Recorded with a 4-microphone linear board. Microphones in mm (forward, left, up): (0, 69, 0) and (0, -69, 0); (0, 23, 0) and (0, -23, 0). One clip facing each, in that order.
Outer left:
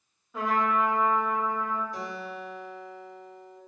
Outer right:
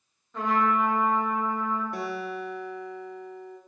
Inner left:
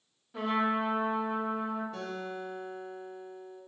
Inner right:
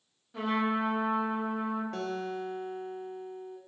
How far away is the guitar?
About 1.1 m.